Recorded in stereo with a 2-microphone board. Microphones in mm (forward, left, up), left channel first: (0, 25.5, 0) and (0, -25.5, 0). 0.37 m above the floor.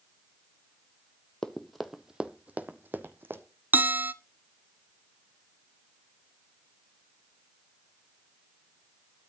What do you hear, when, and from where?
1.4 s running footsteps: 15° left (ahead or behind), 0.9 m; by 3.4 s 50° right (ahead or behind), 1.3 m
3.7 s a bell: 40° right (ahead or behind), 0.5 m